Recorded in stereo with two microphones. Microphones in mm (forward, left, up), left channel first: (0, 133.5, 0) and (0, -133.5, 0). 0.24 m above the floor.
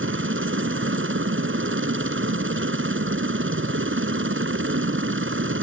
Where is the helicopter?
45° right (ahead or behind).